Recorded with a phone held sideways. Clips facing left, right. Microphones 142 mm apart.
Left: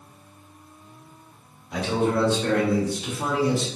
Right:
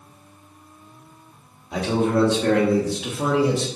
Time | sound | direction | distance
1.7 | a man speaking | 55° right (ahead or behind) | 1.6 m